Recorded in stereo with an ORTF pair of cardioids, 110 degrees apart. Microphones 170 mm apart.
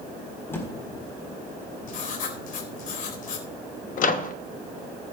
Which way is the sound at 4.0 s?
55° left.